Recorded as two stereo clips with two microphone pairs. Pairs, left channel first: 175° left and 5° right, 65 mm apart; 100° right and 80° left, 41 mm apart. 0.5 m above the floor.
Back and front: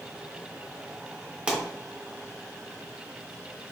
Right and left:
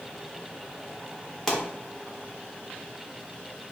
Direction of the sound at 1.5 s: 25° right.